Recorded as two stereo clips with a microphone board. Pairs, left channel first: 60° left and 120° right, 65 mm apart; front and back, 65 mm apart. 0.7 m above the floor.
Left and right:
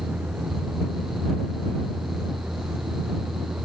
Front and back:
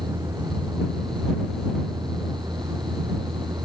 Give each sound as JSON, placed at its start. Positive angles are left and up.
{"t": 0.0, "sound": "a vehicle", "azimuth_deg": 170}